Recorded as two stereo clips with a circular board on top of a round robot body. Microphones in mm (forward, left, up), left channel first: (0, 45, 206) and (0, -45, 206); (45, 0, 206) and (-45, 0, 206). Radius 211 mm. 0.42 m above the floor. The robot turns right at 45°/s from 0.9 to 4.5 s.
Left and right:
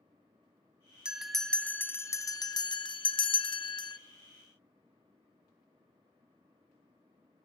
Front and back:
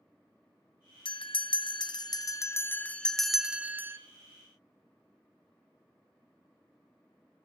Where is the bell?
10° right, 0.6 m; by 4.0 s 120° left, 0.6 m.